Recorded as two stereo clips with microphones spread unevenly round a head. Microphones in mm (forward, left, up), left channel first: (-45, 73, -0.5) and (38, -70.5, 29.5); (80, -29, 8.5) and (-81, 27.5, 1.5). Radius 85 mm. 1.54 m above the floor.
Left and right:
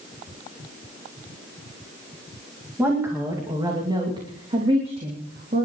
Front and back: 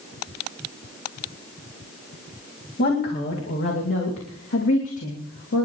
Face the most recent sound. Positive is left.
turn(degrees=-10)